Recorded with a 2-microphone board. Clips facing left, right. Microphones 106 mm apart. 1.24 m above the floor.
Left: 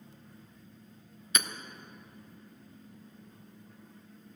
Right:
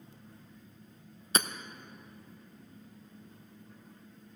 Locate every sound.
1.4 s hammering: 35° right (ahead or behind), 0.6 m